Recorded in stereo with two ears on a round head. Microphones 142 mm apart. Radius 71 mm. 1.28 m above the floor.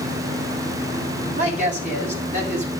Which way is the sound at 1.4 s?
45° right (ahead or behind).